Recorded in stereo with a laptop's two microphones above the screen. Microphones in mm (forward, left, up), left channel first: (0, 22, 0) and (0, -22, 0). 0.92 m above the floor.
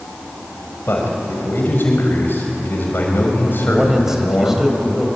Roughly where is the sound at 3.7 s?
Centre.